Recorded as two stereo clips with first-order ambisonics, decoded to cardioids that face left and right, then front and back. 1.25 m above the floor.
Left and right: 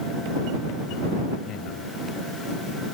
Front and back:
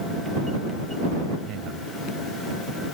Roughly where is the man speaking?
Behind left.